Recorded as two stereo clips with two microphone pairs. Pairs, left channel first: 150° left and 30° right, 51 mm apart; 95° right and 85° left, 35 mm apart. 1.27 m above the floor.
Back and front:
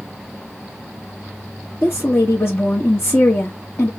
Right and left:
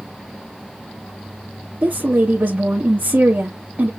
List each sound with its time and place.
1.8 s a woman speaking: 120° left, 1.4 m